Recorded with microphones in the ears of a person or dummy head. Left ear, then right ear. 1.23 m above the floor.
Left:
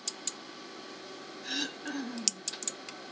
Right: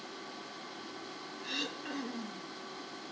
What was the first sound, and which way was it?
Throat clearing, 5° left (ahead or behind).